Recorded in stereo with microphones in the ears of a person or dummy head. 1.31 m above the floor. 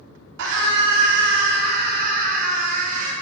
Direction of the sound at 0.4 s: 65° right (ahead or behind).